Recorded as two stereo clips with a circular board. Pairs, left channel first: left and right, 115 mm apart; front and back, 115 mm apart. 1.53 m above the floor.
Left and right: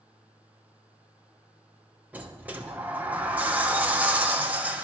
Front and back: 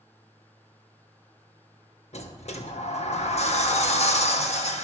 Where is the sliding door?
15° right, 1.1 m.